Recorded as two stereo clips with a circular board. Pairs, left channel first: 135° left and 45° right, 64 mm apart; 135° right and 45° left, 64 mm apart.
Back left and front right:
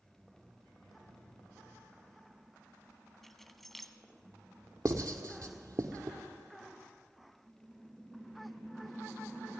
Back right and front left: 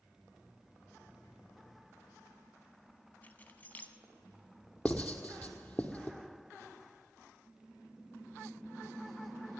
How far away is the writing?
About 1.3 m.